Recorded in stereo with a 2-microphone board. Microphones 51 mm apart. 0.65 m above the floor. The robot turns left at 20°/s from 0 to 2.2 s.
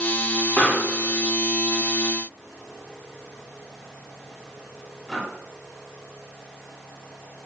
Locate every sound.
0.6 s a pop: 30° left (ahead or behind), 1.9 m; by 5.2 s centre (ahead or behind), 1.9 m